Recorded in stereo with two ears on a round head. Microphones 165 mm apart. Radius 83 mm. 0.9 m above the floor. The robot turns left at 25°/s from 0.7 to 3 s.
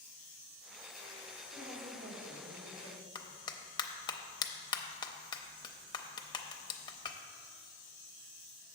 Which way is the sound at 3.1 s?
25° left (ahead or behind).